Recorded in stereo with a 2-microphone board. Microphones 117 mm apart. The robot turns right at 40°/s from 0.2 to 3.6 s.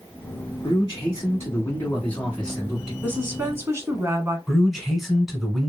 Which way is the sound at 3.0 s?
15° right (ahead or behind).